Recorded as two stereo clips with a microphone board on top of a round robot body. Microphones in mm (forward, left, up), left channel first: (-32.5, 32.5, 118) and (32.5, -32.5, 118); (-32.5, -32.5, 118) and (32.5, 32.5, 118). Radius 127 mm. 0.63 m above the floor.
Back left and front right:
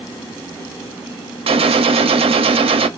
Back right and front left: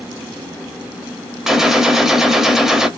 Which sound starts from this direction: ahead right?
A gunshot, at 1.5 s.